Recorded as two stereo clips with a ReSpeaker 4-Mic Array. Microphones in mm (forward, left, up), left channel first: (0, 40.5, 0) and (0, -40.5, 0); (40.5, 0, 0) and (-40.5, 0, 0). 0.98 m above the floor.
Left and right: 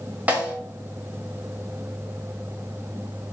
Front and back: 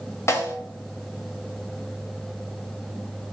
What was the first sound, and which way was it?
A snare drum, 30° right.